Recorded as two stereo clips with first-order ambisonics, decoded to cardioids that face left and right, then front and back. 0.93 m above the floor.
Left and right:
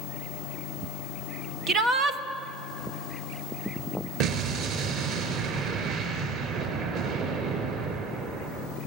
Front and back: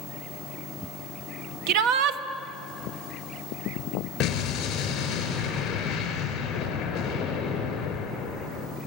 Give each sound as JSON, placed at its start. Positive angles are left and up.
{"t": 1.7, "sound": "a shout", "azimuth_deg": -155, "distance_m": 1.6}
{"t": 4.2, "sound": "an explosion", "azimuth_deg": -50, "distance_m": 4.5}